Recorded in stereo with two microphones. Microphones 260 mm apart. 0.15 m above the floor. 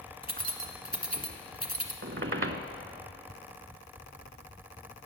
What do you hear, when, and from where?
0.2 s keys jangling: 35° right (ahead or behind), 1.2 m
2.0 s a squeak: 50° right (ahead or behind), 0.7 m